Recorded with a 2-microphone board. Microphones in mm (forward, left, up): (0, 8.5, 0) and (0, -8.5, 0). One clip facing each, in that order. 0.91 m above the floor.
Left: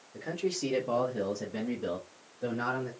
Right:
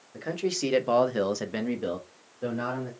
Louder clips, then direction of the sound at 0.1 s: Right 3 dB; 20° right (ahead or behind).